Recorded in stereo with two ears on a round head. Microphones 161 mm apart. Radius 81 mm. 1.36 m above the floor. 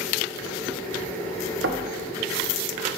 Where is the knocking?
70° right (ahead or behind), 0.8 m.